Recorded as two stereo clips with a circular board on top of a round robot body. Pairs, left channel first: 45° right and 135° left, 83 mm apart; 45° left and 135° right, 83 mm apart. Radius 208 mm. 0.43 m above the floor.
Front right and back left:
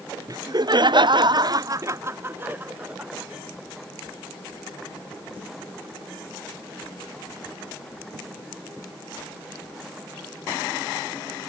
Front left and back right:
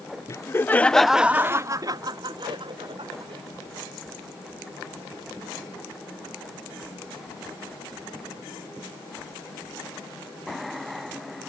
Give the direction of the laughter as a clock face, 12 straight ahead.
9 o'clock.